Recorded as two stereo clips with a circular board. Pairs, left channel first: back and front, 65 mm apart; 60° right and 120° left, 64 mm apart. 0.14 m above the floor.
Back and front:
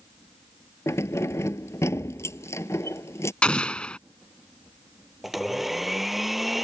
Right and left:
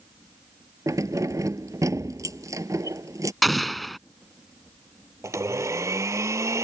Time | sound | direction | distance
0.9 | keys jangling | 140° left | ?
3.4 | an explosion | 150° right | ?
5.2 | a blender | 85° left | ?